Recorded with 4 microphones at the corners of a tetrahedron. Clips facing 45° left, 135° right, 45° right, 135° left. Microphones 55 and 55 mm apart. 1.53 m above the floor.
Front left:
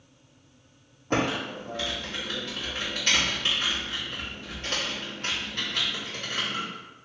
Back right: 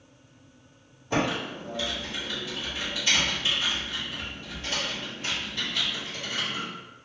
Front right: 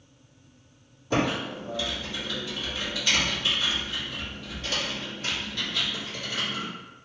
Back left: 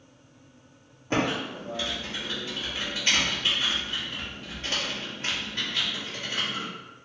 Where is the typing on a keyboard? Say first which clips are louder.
Even, front right 1 dB; 80° left, 1.8 m.